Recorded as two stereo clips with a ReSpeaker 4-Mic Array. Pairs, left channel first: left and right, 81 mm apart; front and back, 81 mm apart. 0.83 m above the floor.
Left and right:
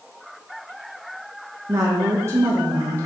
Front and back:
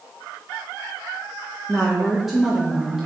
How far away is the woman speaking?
About 1.0 m.